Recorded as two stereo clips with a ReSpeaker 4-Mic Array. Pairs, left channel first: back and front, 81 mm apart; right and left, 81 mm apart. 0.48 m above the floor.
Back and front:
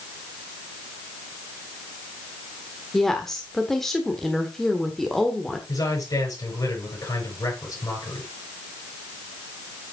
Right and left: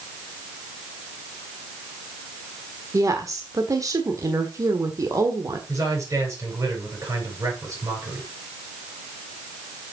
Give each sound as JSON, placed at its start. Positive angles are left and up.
{"t": 2.9, "sound": "a woman speaking", "azimuth_deg": 95, "distance_m": 1.3}
{"t": 5.7, "sound": "a man speaking", "azimuth_deg": 140, "distance_m": 6.0}